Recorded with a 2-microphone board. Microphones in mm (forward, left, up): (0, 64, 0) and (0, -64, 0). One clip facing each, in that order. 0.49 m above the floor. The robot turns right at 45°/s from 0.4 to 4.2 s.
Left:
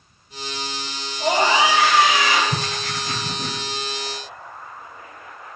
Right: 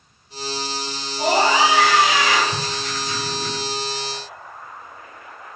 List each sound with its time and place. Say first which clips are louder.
1.2 s a scream: right 1 dB; 95° right, 4 m; by 2.4 s 40° right, 4 m
2.5 s writing: even; 105° left, 1.3 m; by 3.6 s 155° left, 1.3 m